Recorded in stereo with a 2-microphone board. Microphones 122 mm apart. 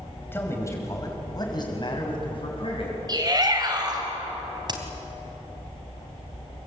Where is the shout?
35° right (ahead or behind), 5.5 m.